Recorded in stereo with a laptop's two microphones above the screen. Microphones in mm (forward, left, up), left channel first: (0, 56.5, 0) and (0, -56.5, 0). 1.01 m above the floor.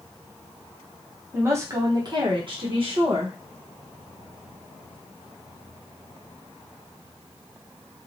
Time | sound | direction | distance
1.3 | a woman speaking | 20° right (ahead or behind) | 0.9 m